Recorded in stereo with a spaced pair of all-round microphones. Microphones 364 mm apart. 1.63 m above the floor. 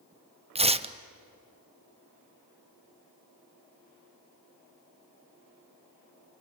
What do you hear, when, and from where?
0.6 s tearing paper: 15° right (ahead or behind), 0.7 m